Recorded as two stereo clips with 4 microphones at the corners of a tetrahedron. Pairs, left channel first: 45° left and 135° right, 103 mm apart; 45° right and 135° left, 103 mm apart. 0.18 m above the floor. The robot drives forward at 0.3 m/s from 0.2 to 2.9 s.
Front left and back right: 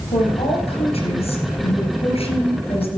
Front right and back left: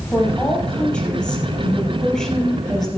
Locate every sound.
0.1 s a woman speaking: 35° left, 3.5 m; by 3.0 s 45° left, 3 m